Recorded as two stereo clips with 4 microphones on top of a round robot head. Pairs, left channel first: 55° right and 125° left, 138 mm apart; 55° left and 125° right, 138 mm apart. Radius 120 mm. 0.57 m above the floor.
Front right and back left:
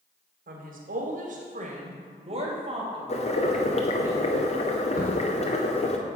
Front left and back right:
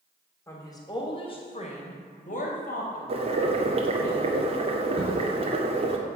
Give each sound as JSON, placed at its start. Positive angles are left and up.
{"t": 0.5, "sound": "a woman speaking", "azimuth_deg": 125, "distance_m": 3.5}
{"t": 3.1, "sound": "boiling", "azimuth_deg": -85, "distance_m": 2.0}
{"t": 5.0, "sound": "a crack", "azimuth_deg": -70, "distance_m": 5.5}